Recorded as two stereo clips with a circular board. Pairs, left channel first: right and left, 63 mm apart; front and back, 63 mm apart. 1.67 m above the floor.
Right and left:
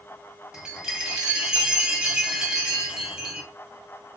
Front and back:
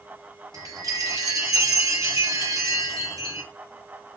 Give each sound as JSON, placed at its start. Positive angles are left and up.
{"t": 0.5, "sound": "a chime", "azimuth_deg": 170, "distance_m": 0.9}